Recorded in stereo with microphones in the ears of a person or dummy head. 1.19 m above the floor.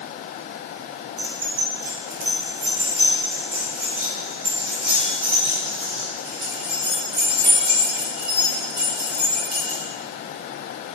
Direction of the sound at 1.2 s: 30° right (ahead or behind).